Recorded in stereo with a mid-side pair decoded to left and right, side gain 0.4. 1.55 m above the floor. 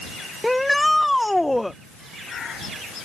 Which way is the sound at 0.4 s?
Straight ahead.